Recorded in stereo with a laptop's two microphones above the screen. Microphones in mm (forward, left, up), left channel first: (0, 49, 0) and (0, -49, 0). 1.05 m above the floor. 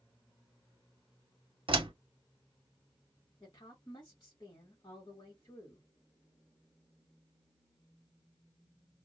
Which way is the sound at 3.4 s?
45° left (ahead or behind).